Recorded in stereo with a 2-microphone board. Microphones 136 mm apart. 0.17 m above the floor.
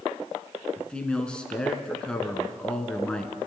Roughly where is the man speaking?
Centre.